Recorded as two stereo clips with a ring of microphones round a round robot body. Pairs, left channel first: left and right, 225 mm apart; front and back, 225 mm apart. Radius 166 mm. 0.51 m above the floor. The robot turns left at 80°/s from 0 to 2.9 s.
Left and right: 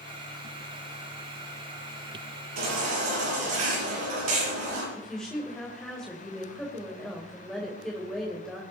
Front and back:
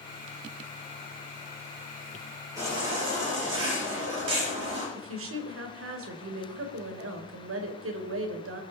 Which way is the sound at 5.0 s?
Straight behind.